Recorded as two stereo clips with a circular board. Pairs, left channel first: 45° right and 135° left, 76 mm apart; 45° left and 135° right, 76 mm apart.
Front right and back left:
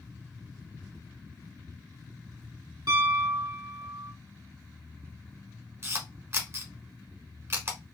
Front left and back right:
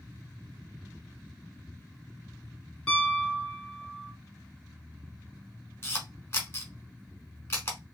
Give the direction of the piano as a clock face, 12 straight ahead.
8 o'clock.